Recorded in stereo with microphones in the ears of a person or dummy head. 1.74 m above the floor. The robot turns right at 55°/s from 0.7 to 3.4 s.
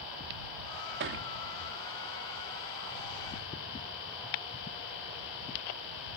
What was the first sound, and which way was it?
A thud, 60° right (ahead or behind).